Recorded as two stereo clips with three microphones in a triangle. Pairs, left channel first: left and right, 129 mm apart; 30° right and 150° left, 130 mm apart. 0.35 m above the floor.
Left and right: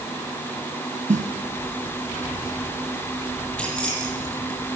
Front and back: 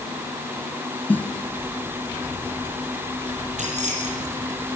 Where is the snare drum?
110° right, 1.4 m.